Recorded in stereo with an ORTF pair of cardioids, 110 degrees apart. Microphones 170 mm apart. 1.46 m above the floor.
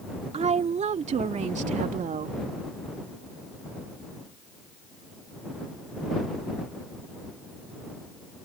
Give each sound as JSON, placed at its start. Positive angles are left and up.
{"t": 0.3, "sound": "a woman speaking", "azimuth_deg": -40}